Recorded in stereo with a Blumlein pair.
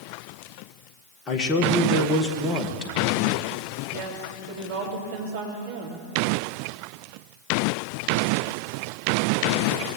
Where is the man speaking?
25° left, 1.7 m.